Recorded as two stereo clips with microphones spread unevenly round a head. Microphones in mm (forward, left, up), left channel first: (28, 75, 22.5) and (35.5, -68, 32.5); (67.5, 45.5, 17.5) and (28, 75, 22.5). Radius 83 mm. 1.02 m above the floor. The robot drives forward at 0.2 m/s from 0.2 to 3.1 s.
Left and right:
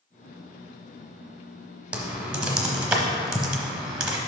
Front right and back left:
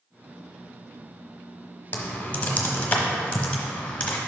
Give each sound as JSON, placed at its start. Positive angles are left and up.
{"t": 1.9, "sound": "typing on a keyboard", "azimuth_deg": -20, "distance_m": 0.9}